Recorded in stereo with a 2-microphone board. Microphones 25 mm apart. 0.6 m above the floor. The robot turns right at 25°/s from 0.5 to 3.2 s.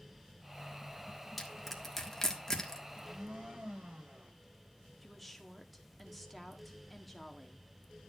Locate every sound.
1.4 s crushing: 5° left (ahead or behind), 1.6 m; by 2.8 s 25° left (ahead or behind), 1.6 m
2.9 s a blender: 50° right (ahead or behind), 3 m; by 4.3 s 60° right (ahead or behind), 3 m
5.0 s a woman speaking: 5° left (ahead or behind), 1.4 m